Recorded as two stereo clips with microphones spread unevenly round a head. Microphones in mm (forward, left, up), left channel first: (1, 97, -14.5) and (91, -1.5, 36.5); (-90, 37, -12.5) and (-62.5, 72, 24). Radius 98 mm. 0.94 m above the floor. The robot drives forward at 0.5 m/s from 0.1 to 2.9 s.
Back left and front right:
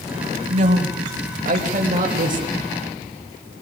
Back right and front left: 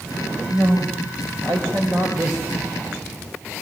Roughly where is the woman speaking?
Ahead.